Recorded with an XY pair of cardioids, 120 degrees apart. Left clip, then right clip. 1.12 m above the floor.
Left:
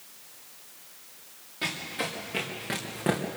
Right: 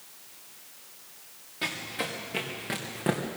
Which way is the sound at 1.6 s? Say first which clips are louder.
Left 1 dB; 5° right.